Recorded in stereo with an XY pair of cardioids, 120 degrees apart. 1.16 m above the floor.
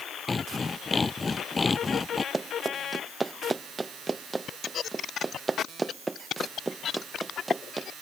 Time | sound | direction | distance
0.3 | sawing | 20° left | ?
2.3 | running footsteps | 20° right | ?